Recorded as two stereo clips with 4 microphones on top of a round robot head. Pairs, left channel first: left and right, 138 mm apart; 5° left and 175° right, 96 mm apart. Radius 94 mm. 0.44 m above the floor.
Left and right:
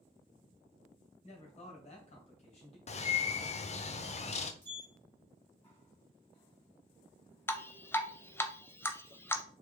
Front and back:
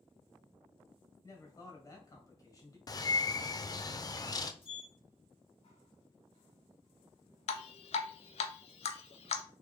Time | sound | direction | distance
1.2 | a man speaking | 55° left | 2 m
2.9 | a bird | 55° left | 0.6 m
4.6 | a sliding door | 15° left | 2.5 m
7.5 | dripping | 15° left | 0.5 m